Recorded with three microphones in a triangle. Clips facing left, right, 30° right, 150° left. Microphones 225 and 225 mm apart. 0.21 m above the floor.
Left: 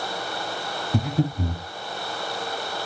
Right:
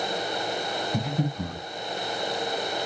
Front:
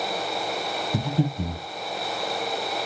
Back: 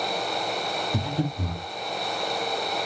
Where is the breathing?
40° left, 1.1 m.